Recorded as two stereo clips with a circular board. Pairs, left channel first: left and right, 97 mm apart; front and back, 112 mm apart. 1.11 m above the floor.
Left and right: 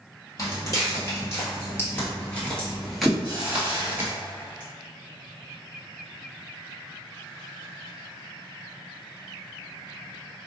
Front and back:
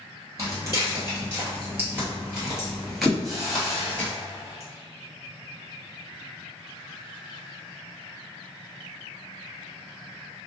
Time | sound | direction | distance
0.4 | footsteps | 130° left | 1.7 m
3.2 | a hiss | 120° left | 1.0 m